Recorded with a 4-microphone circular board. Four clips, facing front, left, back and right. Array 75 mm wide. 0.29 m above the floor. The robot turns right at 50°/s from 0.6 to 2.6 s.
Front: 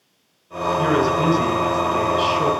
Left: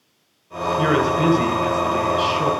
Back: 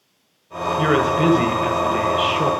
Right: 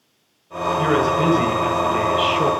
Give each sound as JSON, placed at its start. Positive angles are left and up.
{"t": 0.8, "sound": "a man speaking", "azimuth_deg": 160, "distance_m": 1.0}